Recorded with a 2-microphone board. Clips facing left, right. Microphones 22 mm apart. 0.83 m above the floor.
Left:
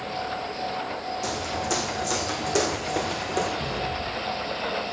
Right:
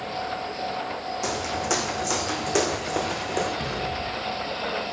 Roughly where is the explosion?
Right.